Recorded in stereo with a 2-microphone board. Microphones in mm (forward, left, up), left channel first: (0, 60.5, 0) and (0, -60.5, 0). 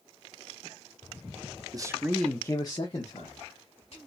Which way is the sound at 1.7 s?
30° right (ahead or behind).